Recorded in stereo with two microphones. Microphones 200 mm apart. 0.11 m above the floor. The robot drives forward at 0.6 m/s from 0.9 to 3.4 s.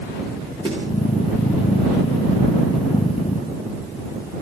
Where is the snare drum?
25° right (ahead or behind), 6.5 m.